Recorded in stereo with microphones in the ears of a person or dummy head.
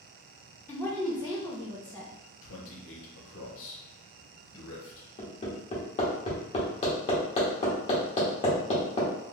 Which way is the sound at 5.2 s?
35° left (ahead or behind).